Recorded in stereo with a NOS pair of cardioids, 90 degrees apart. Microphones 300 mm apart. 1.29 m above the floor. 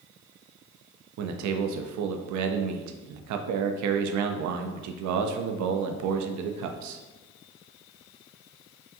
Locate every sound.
1.2 s a man speaking: 70° right, 0.5 m